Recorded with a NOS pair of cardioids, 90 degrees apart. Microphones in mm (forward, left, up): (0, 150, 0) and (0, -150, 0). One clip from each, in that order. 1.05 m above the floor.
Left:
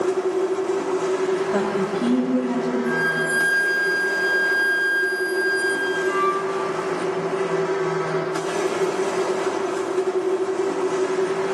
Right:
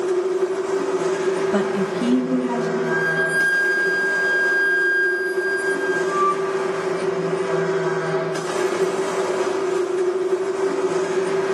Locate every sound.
0.0 s a machine running: 25° right, 1.6 m
1.5 s a woman speaking: 40° right, 2 m
2.9 s a flute: 30° left, 0.9 m